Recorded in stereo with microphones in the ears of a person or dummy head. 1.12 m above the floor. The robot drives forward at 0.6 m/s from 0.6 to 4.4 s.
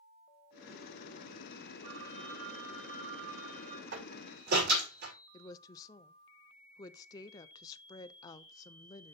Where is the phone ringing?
60° right (ahead or behind), 3 m; by 3.8 s 45° right (ahead or behind), 4 m.